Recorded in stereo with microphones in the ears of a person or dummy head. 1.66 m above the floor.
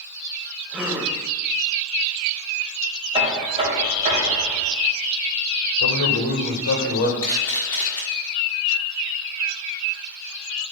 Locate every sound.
0.7 s a gasp: 10° right (ahead or behind), 1.0 m
3.1 s knocking: 25° right (ahead or behind), 2.5 m
5.8 s a man speaking: 70° left (ahead or behind), 1.4 m
7.2 s a camera shutter: 20° left (ahead or behind), 1.6 m